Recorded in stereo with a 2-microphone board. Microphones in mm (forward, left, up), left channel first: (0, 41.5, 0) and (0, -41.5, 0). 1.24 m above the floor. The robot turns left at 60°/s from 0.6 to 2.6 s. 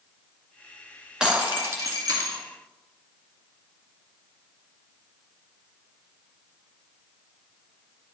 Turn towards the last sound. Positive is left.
turn(degrees=-95)